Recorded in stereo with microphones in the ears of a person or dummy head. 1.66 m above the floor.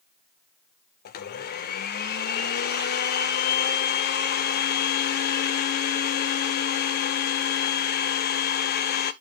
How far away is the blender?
About 0.7 m.